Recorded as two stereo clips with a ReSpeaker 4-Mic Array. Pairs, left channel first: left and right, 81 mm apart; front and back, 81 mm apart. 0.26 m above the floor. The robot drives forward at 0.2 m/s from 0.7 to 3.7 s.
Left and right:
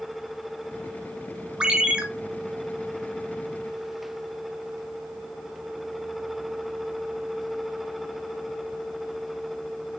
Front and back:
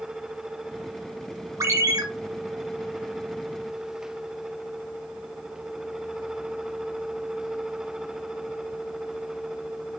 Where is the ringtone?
160° right, 0.7 m; by 2.0 s 165° right, 0.7 m.